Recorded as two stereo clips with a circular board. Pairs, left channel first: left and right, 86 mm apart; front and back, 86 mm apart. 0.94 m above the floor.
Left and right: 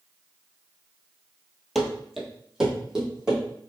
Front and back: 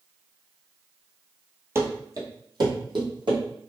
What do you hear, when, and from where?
1.8 s running footsteps: straight behind, 1.0 m; by 3.4 s 175° right, 2 m